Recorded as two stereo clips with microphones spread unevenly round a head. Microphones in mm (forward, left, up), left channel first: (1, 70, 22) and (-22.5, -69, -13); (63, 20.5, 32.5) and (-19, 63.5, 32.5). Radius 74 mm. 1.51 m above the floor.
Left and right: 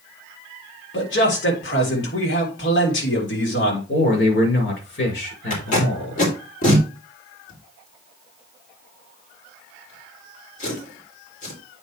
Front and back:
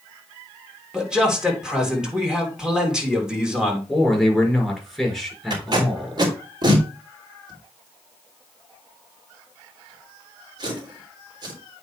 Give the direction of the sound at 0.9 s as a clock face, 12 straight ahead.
10 o'clock.